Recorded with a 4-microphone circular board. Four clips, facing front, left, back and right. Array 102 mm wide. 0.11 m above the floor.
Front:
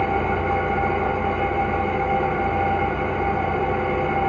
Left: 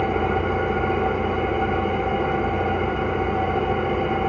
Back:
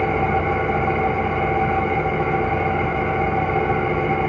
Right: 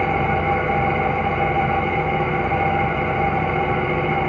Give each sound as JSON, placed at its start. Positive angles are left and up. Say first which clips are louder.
{"t": 0.0, "sound": "an engine running", "louder": "right 2 dB, back 2 dB", "azimuth_deg": -110, "distance_m": 2.0}